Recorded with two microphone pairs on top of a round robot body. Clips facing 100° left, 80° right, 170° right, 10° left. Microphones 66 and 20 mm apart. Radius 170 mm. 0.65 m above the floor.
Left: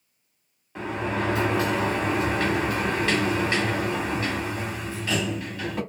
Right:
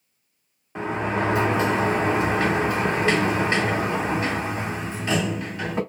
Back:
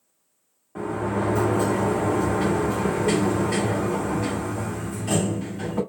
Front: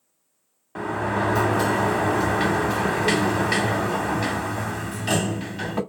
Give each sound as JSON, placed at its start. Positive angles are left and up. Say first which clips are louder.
{"t": 0.8, "sound": "a sliding door", "louder": "right 3 dB, front 1 dB", "azimuth_deg": -15, "distance_m": 0.8}